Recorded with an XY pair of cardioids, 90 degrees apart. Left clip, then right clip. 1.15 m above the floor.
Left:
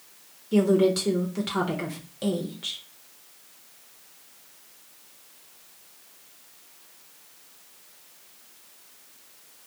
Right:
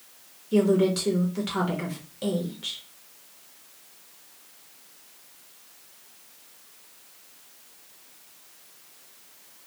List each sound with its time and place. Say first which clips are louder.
0.5 s a woman speaking: left 1 dB; 15° left, 0.7 m